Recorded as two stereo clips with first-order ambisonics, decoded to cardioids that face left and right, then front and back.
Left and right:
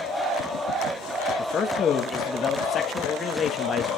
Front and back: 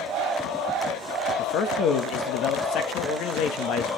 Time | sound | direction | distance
1.4 | a man speaking | 30° left | 1.3 m